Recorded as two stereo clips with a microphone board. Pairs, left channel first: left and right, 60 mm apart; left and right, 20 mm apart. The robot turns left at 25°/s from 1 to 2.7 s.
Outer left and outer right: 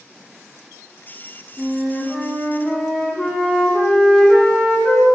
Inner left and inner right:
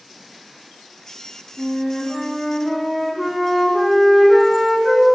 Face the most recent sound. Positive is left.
turn(degrees=15)  # may be behind; listen again after turning